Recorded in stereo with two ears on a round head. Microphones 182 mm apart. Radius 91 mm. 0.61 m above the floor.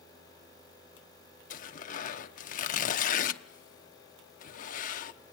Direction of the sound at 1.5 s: 40° left (ahead or behind).